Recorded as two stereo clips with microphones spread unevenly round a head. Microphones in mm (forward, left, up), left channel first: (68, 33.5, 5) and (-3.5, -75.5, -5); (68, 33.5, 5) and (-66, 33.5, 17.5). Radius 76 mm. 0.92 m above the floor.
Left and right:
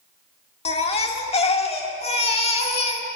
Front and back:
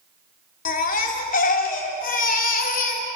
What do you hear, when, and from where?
0.7 s a baby crying: 15° left, 2 m